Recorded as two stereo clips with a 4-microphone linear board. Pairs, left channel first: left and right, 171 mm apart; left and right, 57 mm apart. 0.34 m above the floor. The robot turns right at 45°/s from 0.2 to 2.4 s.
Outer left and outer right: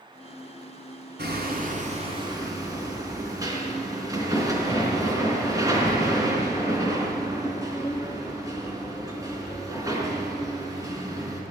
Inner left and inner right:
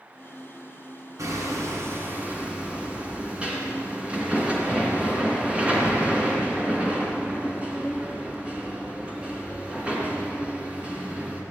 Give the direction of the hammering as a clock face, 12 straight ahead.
2 o'clock.